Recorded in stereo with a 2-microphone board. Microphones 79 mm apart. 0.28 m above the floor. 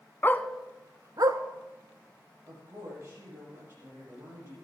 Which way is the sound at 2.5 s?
30° right (ahead or behind).